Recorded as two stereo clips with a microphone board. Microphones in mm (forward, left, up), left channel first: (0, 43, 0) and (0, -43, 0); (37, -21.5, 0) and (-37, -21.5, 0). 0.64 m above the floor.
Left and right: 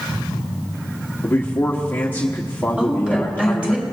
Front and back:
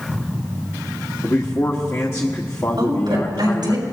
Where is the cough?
I don't hear a cough.